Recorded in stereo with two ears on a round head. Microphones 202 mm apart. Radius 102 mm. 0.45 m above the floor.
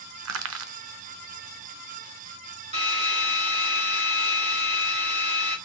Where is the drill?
30° right (ahead or behind), 2 m.